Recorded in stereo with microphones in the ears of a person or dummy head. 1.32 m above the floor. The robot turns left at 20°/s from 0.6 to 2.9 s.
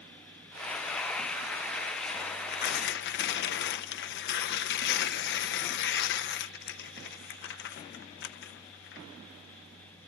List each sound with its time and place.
2.2 s tearing paper: 50° left (ahead or behind), 0.7 m; by 9.1 s 65° left (ahead or behind), 0.7 m